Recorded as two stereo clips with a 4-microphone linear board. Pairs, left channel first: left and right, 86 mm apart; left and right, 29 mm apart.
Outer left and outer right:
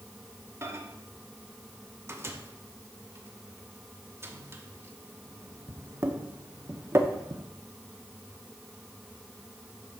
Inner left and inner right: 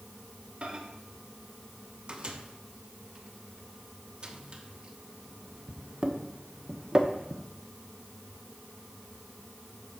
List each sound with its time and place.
0.6 s a microwave: 30° right (ahead or behind), 1.0 m